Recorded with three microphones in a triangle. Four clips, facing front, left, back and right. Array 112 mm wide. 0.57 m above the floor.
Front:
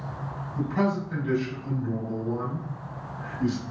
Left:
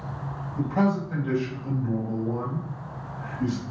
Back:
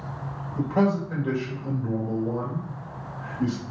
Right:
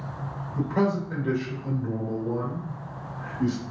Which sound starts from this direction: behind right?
A man speaking, at 0.6 s.